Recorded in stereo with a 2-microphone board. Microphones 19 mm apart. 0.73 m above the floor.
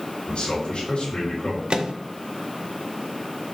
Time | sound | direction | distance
0.3 | a man speaking | 60° left (ahead or behind) | 3 m
1.7 | a microwave | 65° right (ahead or behind) | 0.6 m